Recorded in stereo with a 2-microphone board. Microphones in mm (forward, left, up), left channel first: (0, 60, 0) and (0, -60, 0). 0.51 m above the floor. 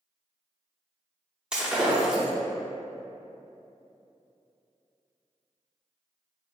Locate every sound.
1.5 s breaking glass: 5° right (ahead or behind), 0.7 m